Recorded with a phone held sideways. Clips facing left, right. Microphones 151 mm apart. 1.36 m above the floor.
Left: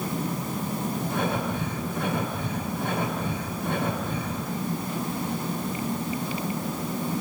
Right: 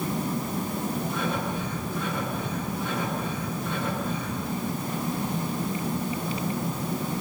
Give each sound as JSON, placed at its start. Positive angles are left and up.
{"t": 1.1, "sound": "breathing", "side_deg": 60, "distance_m": 6.0}